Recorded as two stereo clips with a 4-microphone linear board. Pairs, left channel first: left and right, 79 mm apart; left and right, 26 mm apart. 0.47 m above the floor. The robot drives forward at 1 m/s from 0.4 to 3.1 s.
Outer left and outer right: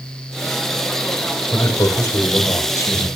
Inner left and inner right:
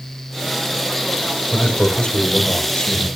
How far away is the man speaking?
About 1.7 m.